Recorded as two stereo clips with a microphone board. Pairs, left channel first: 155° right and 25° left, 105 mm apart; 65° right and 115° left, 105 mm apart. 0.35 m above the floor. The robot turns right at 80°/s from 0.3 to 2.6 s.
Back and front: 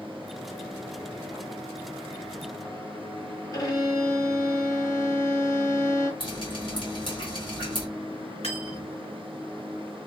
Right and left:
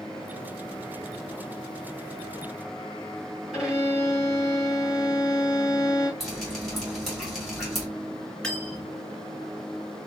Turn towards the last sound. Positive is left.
turn(degrees=-150)